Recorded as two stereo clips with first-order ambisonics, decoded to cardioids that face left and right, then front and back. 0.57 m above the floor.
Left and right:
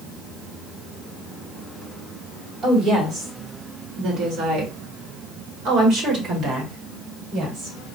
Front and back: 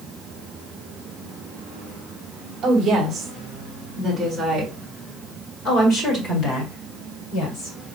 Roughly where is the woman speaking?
Behind right.